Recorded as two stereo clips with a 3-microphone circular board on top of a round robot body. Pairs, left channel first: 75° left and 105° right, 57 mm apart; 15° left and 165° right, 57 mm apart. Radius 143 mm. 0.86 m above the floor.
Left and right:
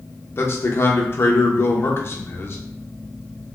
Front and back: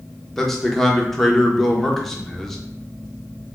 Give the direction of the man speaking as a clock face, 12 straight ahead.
9 o'clock.